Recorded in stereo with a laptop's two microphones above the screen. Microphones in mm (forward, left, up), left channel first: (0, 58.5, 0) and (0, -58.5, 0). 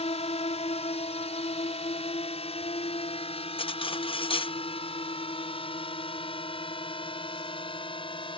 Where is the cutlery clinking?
50° left (ahead or behind).